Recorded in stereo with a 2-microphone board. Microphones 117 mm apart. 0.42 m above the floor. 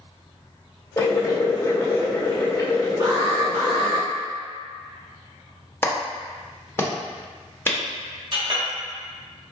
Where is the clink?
50° right (ahead or behind), 1.3 m.